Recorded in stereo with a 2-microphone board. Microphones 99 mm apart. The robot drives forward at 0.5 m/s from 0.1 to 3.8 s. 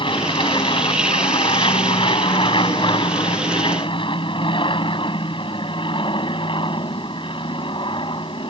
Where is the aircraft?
50° left (ahead or behind); by 8.5 s 55° left (ahead or behind).